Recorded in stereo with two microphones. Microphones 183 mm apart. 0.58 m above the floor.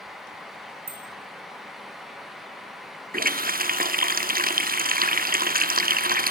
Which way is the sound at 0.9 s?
65° right (ahead or behind).